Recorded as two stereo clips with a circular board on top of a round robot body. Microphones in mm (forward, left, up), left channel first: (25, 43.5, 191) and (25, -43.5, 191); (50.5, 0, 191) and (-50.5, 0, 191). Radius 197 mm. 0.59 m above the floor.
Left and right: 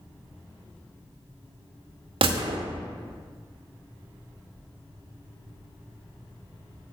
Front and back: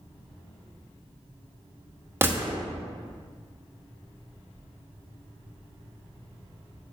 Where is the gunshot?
110° right, 0.9 m.